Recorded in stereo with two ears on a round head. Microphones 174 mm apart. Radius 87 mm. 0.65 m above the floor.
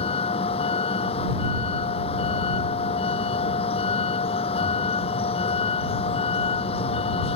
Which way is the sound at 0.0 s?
30° left (ahead or behind).